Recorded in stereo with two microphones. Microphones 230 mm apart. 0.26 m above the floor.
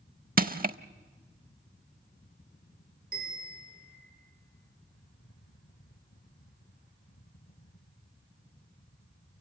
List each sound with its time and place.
0.4 s crushing: 40° right (ahead or behind), 0.6 m
3.1 s a bell: 45° right (ahead or behind), 7.5 m